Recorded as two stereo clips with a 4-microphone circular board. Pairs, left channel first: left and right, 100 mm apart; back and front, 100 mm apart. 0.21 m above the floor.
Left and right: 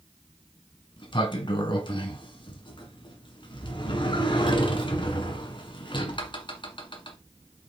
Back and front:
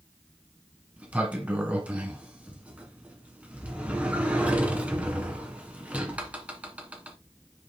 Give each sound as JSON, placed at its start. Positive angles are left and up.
{"t": 1.0, "sound": "a sliding door", "azimuth_deg": 70, "distance_m": 1.5}